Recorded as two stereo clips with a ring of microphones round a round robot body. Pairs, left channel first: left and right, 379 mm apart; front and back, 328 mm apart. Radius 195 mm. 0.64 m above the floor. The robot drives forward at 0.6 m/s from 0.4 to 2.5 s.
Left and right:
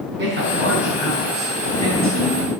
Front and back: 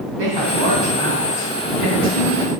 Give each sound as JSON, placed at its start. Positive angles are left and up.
{"t": 0.2, "sound": "a woman speaking", "azimuth_deg": -150, "distance_m": 5.0}